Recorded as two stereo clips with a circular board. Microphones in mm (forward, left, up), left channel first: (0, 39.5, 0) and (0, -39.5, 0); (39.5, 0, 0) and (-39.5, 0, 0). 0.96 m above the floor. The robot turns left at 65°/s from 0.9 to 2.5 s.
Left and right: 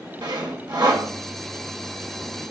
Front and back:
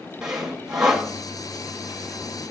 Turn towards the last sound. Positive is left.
turn(degrees=155)